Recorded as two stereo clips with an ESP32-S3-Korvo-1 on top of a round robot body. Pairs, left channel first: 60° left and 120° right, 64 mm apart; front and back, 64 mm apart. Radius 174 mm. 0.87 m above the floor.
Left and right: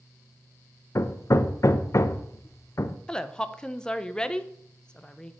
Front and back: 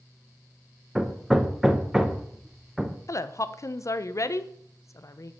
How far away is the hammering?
About 0.7 m.